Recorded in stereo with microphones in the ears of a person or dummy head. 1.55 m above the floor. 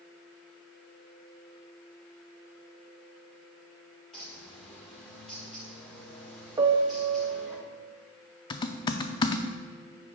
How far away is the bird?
About 1.2 m.